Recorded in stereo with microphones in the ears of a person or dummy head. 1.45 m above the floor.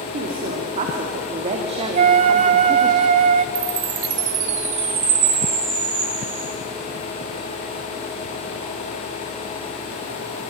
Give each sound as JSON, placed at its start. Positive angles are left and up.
{"t": 0.1, "sound": "a woman speaking", "side_deg": -50, "distance_m": 3.0}
{"t": 1.9, "sound": "a flute", "side_deg": -50, "distance_m": 1.4}
{"t": 3.5, "sound": "a chime", "side_deg": -35, "distance_m": 6.5}